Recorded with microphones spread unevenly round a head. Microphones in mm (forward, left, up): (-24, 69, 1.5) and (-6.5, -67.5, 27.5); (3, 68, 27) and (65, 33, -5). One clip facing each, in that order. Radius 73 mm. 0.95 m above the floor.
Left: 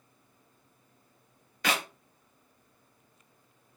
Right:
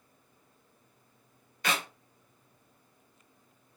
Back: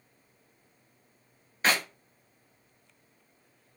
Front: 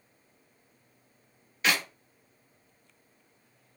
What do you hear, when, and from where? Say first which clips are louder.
1.6 s a clap: left 2 dB, back 1 dB; 90° left, 1.4 m